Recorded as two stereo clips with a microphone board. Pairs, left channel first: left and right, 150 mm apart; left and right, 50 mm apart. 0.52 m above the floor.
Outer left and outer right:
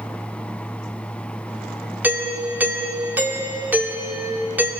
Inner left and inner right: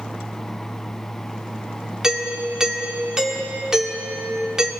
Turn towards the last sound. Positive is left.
turn(degrees=-10)  # may be behind; listen again after turning